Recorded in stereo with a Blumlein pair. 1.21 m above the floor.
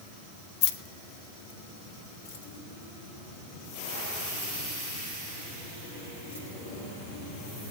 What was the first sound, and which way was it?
Keys jangling, 40° left.